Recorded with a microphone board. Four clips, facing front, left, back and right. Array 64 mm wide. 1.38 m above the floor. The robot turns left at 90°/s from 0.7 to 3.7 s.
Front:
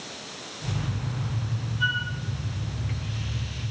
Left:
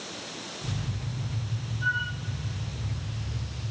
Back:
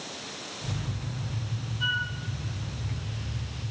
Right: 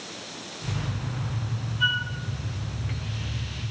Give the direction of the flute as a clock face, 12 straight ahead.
2 o'clock.